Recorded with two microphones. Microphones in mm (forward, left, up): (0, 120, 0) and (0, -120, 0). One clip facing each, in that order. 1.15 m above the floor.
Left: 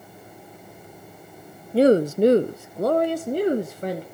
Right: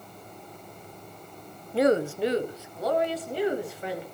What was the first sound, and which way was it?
A woman speaking, 30° left (ahead or behind).